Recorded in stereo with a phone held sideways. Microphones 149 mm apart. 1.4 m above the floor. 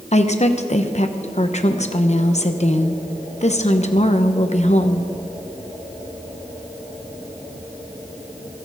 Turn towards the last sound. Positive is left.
turn(degrees=50)  # may be behind; listen again after turning